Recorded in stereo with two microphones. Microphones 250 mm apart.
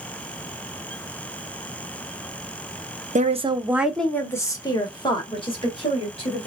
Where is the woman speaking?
30° right (ahead or behind), 0.7 m; by 6.5 s 25° left (ahead or behind), 2.5 m.